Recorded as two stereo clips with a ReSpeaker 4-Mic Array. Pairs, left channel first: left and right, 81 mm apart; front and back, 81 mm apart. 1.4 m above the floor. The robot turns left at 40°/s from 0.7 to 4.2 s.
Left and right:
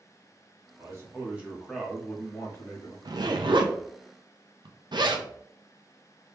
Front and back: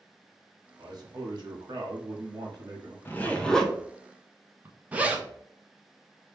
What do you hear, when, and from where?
0.8 s a man speaking: 140° right, 1.2 m; by 3.0 s 130° left, 1.2 m
3.0 s a zipper: 65° right, 0.6 m; by 5.3 s 110° right, 0.6 m